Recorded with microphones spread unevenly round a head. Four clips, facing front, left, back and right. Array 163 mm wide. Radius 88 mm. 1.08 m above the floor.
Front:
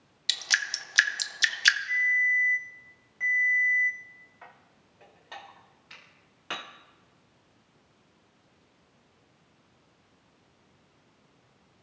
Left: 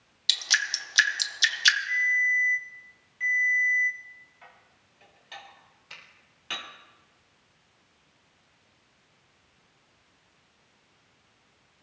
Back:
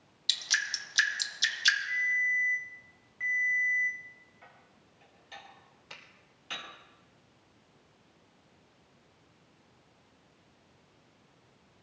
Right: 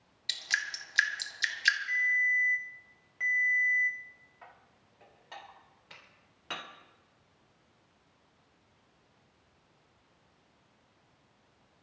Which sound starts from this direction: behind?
A finger snap, at 5.9 s.